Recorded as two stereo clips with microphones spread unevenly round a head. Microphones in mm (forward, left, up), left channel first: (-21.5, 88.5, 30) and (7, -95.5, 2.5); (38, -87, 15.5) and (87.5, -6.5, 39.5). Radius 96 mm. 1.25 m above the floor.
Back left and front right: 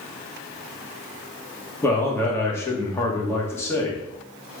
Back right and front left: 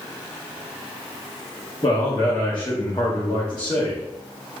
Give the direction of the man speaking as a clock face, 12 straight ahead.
6 o'clock.